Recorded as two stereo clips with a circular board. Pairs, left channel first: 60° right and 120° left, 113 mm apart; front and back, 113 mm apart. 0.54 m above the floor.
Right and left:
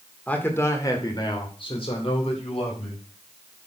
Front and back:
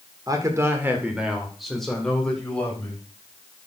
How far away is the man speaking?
About 1.9 m.